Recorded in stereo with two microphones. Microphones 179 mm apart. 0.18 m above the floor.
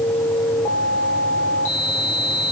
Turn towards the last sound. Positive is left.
No sound to turn to.